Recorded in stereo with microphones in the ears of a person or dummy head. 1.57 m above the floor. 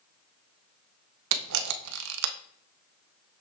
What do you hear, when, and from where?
1.3 s a camera shutter: 70° right (ahead or behind), 0.6 m